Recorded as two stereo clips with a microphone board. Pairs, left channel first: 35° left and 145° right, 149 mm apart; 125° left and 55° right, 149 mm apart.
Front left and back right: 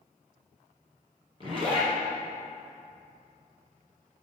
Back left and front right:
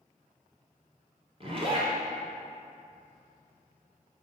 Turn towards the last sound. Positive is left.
turn(degrees=-95)